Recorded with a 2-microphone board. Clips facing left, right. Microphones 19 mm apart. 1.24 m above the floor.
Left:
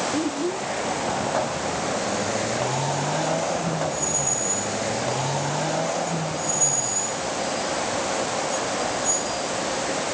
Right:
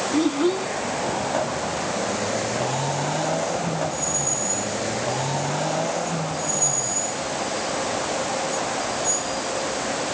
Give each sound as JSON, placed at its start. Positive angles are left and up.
{"t": 0.1, "sound": "a child speaking", "side_deg": -55}